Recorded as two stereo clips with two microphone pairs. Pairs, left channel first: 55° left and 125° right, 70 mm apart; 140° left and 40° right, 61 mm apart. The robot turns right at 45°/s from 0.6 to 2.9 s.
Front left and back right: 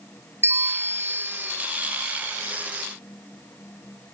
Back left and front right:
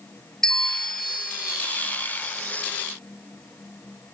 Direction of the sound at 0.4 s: 135° right.